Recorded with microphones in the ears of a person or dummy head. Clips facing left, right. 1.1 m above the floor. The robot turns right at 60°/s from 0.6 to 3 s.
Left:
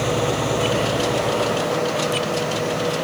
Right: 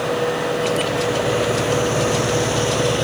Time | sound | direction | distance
0.0 | an engine running | 150° left | ?